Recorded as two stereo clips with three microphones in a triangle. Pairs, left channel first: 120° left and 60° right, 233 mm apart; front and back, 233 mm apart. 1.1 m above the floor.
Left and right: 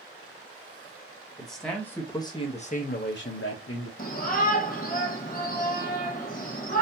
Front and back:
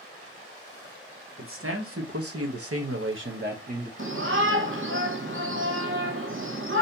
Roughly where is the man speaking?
Behind right.